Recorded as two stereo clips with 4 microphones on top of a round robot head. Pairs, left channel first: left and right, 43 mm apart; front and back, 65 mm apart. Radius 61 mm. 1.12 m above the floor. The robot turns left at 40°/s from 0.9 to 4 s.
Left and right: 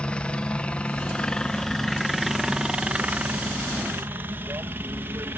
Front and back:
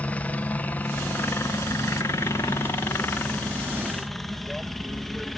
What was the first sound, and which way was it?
A helicopter, 50° left.